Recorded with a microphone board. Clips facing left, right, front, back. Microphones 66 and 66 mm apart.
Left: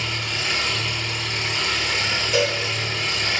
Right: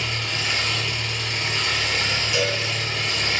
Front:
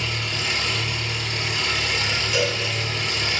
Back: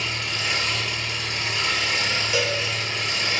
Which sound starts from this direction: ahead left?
An engine running, at 0.0 s.